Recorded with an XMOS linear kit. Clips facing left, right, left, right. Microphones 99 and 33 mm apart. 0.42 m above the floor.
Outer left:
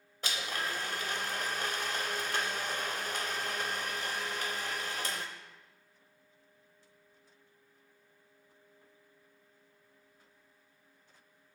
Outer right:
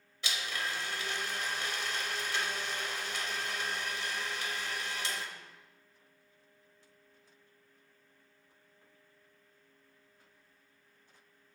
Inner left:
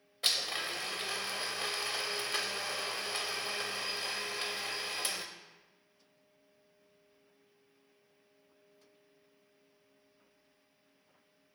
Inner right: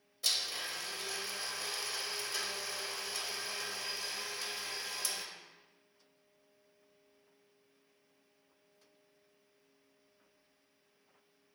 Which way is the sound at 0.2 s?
45° left (ahead or behind).